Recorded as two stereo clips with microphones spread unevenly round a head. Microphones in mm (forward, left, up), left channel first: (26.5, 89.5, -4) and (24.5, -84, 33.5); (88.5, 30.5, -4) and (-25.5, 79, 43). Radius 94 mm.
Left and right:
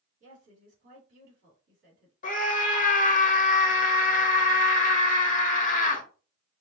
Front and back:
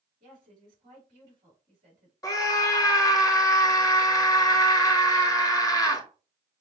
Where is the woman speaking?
145° right, 2.5 m.